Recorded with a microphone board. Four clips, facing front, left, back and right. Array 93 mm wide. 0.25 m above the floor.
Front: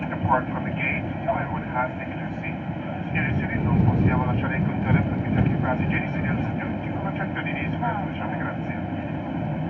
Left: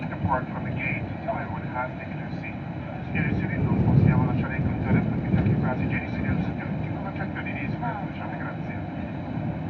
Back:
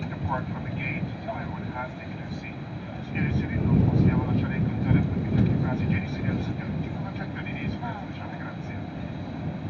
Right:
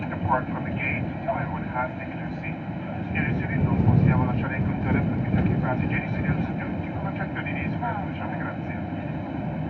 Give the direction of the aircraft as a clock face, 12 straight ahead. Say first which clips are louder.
Right 2 dB, front 8 dB; 12 o'clock.